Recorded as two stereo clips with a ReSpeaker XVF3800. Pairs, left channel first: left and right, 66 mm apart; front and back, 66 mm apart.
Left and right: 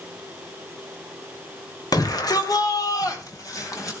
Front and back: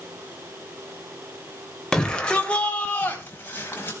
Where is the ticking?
No ticking in this recording.